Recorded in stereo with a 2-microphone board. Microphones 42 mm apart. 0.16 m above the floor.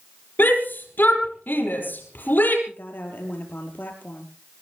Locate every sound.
0.4 s a shout: 55° left (ahead or behind), 5.5 m
2.7 s a woman speaking: 50° left (ahead or behind), 4.5 m